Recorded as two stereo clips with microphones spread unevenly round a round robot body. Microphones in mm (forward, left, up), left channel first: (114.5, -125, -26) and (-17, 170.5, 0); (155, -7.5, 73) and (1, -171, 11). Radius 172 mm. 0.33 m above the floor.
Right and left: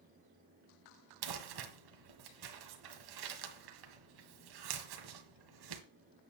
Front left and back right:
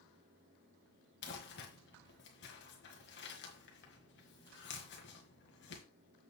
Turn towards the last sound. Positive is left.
turn(degrees=105)